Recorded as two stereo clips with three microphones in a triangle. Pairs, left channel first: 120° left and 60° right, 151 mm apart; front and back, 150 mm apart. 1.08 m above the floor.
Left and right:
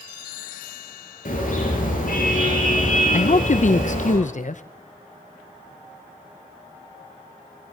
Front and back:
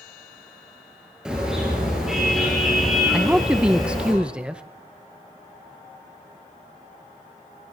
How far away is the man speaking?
About 0.7 m.